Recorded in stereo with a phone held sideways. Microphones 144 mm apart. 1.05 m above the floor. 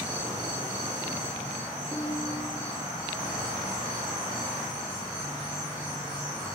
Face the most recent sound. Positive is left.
turn(degrees=-10)  # may be behind; listen again after turning